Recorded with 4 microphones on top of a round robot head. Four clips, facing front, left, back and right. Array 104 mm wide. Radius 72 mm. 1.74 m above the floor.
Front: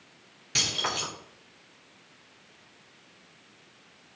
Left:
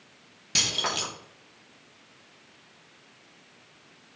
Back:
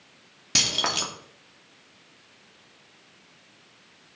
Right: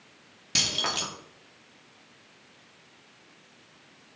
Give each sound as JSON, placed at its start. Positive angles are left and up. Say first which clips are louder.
{"t": 0.6, "sound": "keys jangling", "louder": "left 1 dB, back 3 dB", "azimuth_deg": -175, "distance_m": 3.0}